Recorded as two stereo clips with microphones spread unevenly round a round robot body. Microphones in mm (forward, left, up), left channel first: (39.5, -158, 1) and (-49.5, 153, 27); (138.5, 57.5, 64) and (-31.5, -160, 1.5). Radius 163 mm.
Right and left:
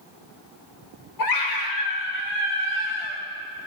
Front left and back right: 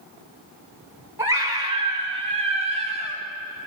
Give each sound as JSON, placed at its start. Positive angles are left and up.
{"t": 1.2, "sound": "a scream", "azimuth_deg": -50, "distance_m": 4.0}